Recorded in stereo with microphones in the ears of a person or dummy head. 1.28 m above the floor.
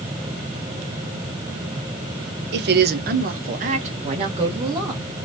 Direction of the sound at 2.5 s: 50° right (ahead or behind).